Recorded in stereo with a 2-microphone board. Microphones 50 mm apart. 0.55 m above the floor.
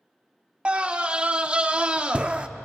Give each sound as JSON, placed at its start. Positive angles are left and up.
{"t": 0.7, "sound": "a scream", "side_deg": -25, "distance_m": 0.6}